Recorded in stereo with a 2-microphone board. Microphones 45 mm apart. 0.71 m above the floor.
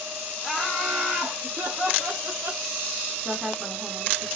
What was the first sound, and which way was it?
Laughter, 10° left (ahead or behind).